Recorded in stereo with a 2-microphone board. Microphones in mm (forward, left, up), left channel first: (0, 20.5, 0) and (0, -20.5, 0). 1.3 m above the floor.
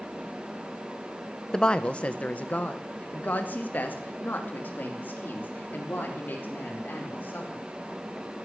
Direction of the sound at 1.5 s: 20° left (ahead or behind).